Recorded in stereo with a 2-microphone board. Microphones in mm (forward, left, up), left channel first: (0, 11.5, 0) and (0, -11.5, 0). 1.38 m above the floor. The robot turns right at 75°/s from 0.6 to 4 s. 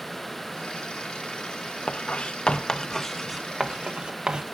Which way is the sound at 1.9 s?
55° left (ahead or behind).